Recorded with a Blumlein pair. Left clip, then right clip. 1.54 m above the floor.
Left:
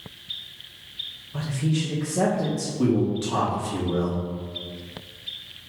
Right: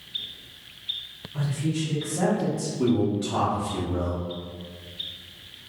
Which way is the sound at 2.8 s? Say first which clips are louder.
Left 1 dB; 20° left.